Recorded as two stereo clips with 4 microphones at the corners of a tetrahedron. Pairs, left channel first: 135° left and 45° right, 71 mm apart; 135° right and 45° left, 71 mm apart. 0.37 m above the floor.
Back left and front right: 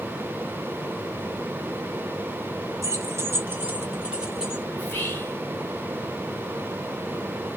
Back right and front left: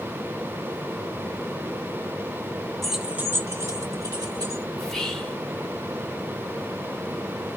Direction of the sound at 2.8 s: 50° right.